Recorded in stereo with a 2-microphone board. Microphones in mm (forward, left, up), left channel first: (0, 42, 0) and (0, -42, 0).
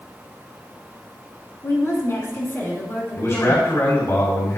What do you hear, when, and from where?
1.6 s a woman speaking: 40° left (ahead or behind), 3 m; by 3.7 s 20° left (ahead or behind), 3.5 m
3.2 s a man speaking: 40° left (ahead or behind), 2 m